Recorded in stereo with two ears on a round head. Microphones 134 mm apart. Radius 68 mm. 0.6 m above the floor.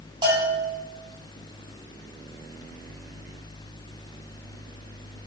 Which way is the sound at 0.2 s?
30° right (ahead or behind).